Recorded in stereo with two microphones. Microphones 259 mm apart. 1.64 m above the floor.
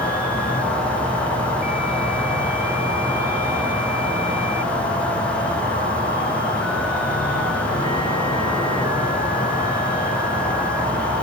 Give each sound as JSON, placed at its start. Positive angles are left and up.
{"t": 0.0, "sound": "an insect", "side_deg": 75, "distance_m": 3.0}